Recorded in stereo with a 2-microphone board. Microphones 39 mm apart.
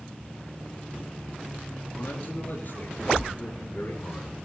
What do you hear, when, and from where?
1.9 s a man speaking: 65° left (ahead or behind), 7 m